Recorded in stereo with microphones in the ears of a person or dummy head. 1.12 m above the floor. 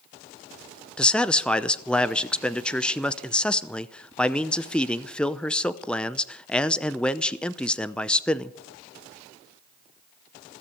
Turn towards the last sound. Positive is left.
turn(degrees=10)  # may be behind; listen again after turning